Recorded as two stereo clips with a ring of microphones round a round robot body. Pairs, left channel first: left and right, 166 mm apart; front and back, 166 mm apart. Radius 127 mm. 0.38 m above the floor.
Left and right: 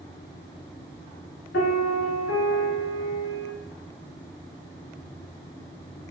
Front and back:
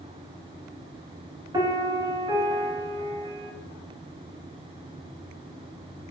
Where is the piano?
115° left, 0.8 m.